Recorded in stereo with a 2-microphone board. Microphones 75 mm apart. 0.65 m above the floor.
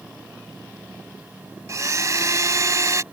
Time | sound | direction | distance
1.7 | a blender | 45° right (ahead or behind) | ?